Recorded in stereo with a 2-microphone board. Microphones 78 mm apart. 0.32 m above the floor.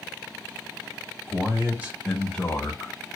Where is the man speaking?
45° right (ahead or behind), 1.3 m; by 2.9 s 40° left (ahead or behind), 1.3 m.